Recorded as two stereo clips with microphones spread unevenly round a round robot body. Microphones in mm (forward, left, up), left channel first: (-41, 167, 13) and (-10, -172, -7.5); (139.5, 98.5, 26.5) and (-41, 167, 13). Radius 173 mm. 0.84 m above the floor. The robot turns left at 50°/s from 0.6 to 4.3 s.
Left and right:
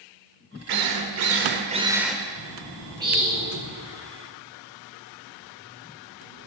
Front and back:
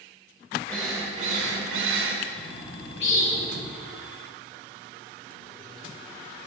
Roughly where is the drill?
Right.